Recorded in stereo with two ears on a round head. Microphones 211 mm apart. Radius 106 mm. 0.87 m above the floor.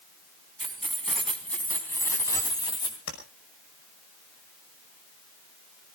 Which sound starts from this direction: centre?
Keys jangling, at 0.6 s.